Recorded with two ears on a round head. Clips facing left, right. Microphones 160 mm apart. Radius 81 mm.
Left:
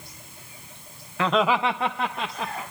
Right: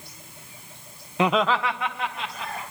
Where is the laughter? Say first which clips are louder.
Even; 20° right (ahead or behind), 0.7 m; by 2.6 s 45° left (ahead or behind), 2 m.